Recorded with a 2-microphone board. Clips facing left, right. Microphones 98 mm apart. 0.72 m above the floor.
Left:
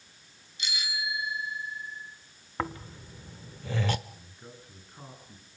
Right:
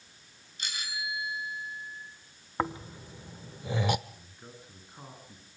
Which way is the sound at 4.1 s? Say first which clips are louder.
Left 1 dB; 10° right (ahead or behind).